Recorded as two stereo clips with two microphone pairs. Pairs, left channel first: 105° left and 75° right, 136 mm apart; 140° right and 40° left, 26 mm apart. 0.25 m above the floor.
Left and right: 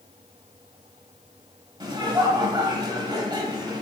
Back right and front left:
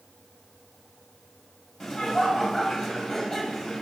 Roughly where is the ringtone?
I don't hear a ringtone.